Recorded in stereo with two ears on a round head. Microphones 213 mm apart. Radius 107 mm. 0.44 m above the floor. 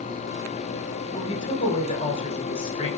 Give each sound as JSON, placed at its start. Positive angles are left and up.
{"t": 1.1, "sound": "a woman speaking", "side_deg": 25, "distance_m": 2.5}